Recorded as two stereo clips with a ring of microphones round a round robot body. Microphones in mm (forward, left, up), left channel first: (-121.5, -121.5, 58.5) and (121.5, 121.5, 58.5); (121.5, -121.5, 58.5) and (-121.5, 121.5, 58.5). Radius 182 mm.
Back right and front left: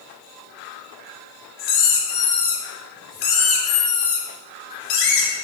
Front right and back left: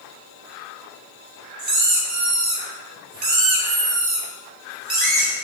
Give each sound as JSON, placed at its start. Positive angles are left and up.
{"t": 1.6, "sound": "a squeak", "azimuth_deg": -160, "distance_m": 3.0}